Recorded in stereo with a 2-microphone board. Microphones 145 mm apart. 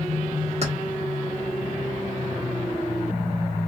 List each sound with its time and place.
0.6 s keys jangling: 50° right (ahead or behind), 0.8 m